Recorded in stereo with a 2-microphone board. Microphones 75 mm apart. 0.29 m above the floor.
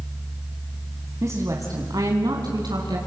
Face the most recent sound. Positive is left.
turn(degrees=-70)  # may be behind; listen again after turning